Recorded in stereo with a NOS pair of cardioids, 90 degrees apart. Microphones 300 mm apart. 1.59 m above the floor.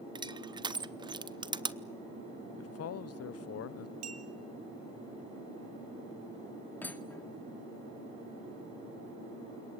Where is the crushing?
15° right, 0.9 m.